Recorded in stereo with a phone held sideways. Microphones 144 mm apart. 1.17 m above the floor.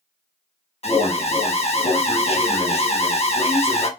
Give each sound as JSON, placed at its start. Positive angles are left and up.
{"t": 0.8, "sound": "an alarm", "side_deg": 50, "distance_m": 1.0}